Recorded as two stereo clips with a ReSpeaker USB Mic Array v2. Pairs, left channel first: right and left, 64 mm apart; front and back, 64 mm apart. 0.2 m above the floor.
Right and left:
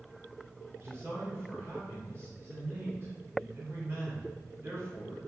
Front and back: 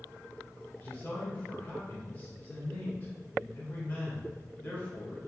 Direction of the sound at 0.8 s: 60° left.